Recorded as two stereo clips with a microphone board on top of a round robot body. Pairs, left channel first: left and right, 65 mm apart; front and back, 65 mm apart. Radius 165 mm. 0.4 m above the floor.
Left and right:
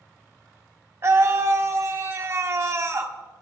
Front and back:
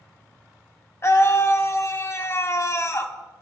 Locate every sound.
1.0 s a scream: 45° right, 2 m